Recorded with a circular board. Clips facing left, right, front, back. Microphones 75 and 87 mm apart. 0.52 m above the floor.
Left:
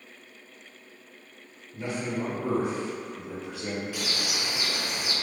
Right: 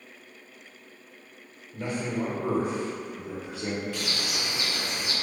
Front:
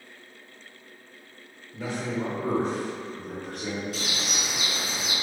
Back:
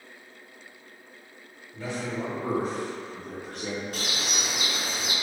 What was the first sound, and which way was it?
A man speaking, 75° right.